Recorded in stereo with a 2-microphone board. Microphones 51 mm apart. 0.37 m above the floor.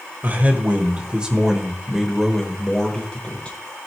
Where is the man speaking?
35° right (ahead or behind), 1.6 m; by 3.6 s 25° left (ahead or behind), 1.7 m.